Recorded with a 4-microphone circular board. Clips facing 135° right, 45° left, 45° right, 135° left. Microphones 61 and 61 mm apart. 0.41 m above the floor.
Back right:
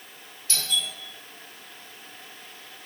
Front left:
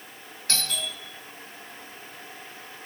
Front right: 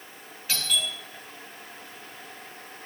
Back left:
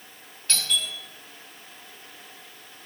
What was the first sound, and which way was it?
A doorbell, 40° left.